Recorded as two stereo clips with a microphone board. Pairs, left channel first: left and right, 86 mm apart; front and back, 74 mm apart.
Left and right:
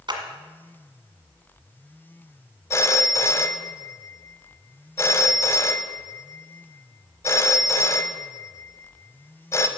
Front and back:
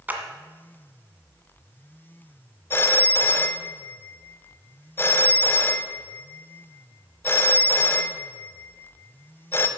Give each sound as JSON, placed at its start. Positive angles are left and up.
{"t": 0.1, "sound": "a clap", "azimuth_deg": -115, "distance_m": 1.7}
{"t": 2.7, "sound": "a phone ringing", "azimuth_deg": 45, "distance_m": 0.8}